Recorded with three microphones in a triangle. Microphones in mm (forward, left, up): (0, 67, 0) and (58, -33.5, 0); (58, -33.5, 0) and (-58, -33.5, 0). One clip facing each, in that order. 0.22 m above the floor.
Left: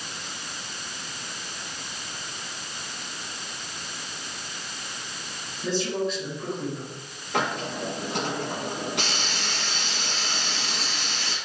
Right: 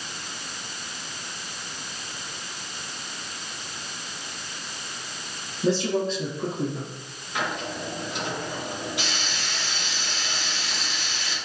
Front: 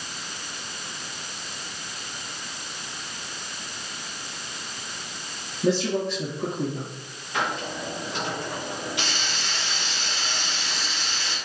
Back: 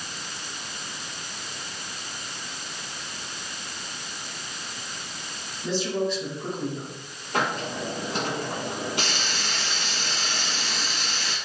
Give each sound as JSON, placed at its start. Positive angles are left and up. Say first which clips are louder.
{"t": 5.6, "sound": "a man speaking", "louder": "right 3 dB, front 3 dB", "azimuth_deg": -10, "distance_m": 4.0}
{"t": 7.3, "sound": "a hiss", "louder": "left 2 dB, back 2 dB", "azimuth_deg": 135, "distance_m": 5.0}